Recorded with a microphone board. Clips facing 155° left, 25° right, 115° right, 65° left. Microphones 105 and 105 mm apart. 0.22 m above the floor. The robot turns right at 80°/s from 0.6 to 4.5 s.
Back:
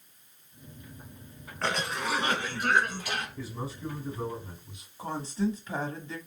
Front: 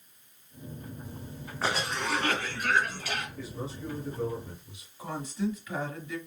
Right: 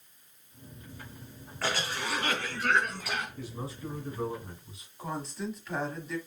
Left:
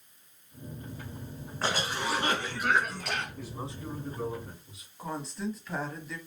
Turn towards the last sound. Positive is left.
turn(degrees=155)